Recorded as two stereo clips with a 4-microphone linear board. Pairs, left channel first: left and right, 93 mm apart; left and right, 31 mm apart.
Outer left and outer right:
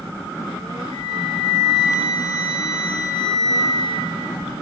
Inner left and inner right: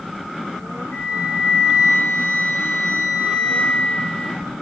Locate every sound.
0.9 s a flute: 45° left (ahead or behind), 1.0 m